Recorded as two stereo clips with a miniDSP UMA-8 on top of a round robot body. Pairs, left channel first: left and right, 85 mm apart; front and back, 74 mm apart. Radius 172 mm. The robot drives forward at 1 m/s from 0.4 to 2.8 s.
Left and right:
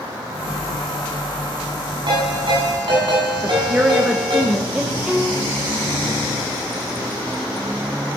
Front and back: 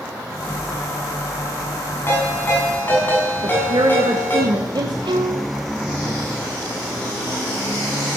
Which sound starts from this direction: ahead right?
A ringtone, at 2.1 s.